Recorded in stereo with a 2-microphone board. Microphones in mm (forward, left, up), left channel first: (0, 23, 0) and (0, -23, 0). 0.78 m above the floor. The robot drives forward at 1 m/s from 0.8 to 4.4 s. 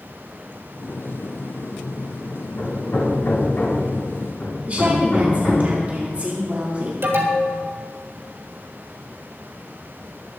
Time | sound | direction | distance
2.6 | hammering | 55° left (ahead or behind) | 5.5 m
4.7 | a woman speaking | 35° right (ahead or behind) | 2 m
7.0 | an alarm | 55° right (ahead or behind) | 3 m